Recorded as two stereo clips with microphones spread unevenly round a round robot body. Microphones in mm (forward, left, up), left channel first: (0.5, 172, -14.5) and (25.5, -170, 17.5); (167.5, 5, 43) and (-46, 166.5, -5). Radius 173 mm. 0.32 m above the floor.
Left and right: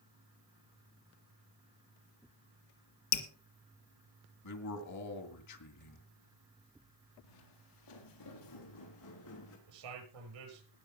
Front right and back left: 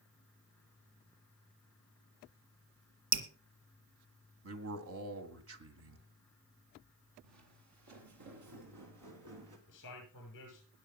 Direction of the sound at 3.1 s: 135° left.